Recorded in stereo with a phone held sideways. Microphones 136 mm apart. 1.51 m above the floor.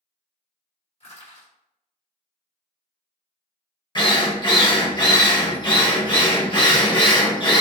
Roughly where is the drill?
Left.